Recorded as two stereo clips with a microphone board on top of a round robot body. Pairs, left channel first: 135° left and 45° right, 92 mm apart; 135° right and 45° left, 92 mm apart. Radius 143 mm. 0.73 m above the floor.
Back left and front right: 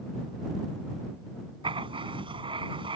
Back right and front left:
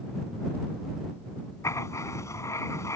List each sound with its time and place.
1.6 s writing: 75° right